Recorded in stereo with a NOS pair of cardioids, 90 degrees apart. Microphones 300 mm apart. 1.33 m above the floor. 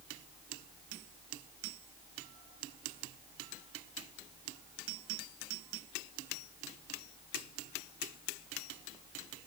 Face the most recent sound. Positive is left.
No sound to turn to.